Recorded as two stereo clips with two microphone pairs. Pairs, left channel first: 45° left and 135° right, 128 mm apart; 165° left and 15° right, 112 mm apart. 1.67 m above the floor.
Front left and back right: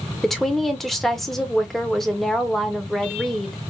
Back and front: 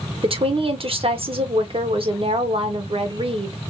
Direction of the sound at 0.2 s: 40° right.